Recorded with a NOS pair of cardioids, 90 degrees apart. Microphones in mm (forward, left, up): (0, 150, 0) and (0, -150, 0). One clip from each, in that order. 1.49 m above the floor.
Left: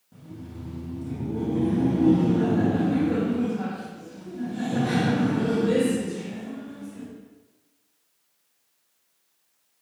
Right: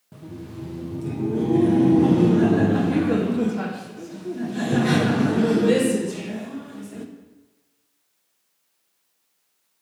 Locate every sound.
0.1 s laughter: 55° right, 1.0 m